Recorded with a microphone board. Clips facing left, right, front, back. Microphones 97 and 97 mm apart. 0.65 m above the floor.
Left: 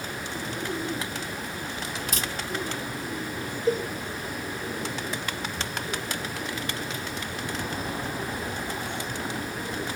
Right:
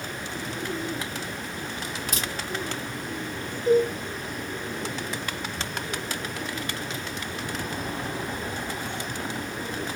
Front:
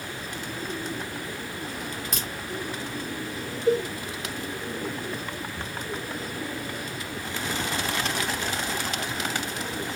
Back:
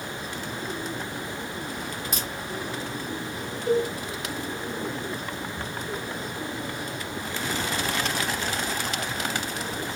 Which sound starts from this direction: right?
A crack, at 2.1 s.